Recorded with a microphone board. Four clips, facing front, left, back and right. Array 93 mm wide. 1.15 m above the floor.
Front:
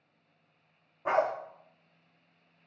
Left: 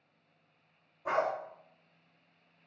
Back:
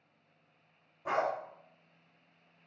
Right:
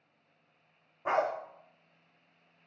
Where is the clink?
No clink in this recording.